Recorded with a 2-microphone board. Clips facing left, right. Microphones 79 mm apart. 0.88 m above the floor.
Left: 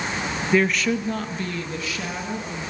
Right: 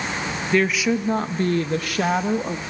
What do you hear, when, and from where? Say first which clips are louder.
0.5 s a woman speaking: right 1 dB; 5° left (ahead or behind), 0.7 m; by 2.6 s 65° right (ahead or behind), 1.5 m